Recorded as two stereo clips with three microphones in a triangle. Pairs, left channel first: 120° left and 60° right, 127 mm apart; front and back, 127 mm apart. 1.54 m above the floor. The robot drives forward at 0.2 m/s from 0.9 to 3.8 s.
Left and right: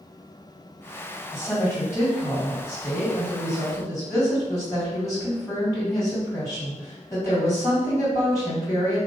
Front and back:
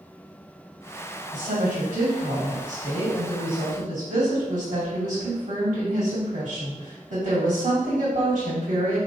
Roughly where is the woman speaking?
Behind.